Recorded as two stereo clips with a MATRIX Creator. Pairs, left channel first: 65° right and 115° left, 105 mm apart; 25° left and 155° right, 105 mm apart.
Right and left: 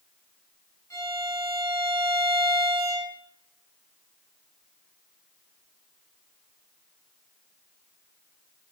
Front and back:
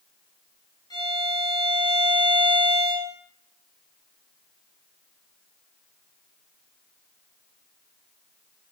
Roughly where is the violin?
Ahead.